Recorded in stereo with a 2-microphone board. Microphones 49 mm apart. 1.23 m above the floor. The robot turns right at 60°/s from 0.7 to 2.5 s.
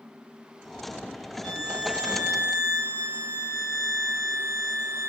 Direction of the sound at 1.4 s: 175° right.